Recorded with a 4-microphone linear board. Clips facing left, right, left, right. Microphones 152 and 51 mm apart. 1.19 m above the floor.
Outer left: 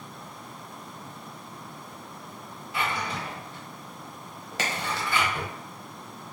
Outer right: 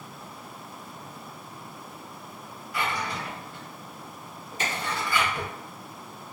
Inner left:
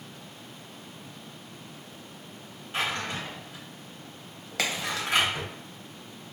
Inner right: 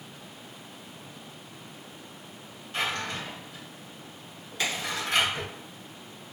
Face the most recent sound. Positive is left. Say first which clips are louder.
# even, inner left 1 dB
turn(degrees=80)